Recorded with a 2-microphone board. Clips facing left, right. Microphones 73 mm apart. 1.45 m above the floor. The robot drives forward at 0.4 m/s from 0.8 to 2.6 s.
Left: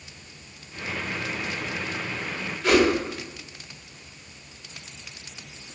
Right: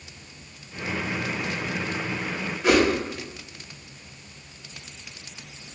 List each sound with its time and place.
2.6 s a whoosh: 15° right (ahead or behind), 1.3 m